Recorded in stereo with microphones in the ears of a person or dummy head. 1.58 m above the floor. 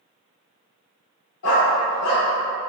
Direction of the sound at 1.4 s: 55° left (ahead or behind).